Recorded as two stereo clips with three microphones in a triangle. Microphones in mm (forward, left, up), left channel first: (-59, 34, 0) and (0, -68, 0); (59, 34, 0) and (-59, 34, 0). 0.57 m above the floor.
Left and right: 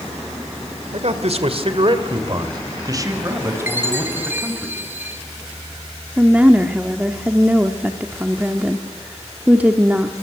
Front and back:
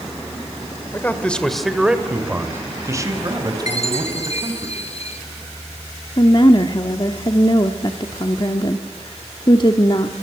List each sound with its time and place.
0.9 s a man speaking: 70° right, 2 m; by 4.7 s 135° right, 4.5 m
3.7 s a chime: 10° left, 3 m
6.2 s a woman speaking: 10° left, 1.2 m